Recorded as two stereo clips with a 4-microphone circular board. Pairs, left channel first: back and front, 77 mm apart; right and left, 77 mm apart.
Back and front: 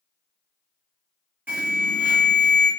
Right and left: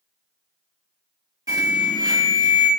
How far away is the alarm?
About 1.5 m.